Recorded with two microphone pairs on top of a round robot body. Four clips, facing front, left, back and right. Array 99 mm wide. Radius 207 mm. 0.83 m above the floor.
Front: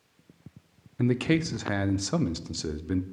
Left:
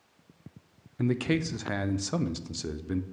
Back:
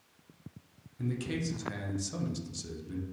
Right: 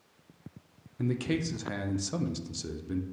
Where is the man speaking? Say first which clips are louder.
Left 3 dB, front 10 dB; 20° left, 0.5 m.